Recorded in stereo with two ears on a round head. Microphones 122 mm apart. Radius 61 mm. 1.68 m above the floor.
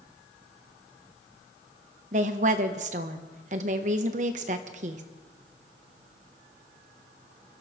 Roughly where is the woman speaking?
Right.